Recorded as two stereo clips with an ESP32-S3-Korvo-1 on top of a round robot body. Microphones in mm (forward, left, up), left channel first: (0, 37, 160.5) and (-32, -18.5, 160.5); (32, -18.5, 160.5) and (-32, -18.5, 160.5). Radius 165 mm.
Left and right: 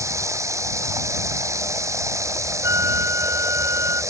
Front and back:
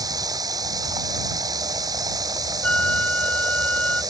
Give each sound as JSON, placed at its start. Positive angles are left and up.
{"t": 0.0, "sound": "running water", "azimuth_deg": -160}
{"t": 2.6, "sound": "a flute", "azimuth_deg": -75}